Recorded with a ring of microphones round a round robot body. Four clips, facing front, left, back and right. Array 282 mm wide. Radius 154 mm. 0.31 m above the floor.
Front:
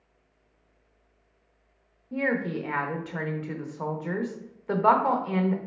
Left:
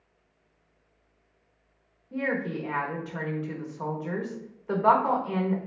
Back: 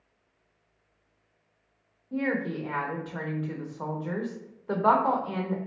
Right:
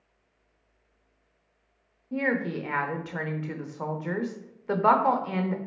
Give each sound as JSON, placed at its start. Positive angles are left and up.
{"t": 2.1, "sound": "a woman speaking", "azimuth_deg": -55, "distance_m": 1.0}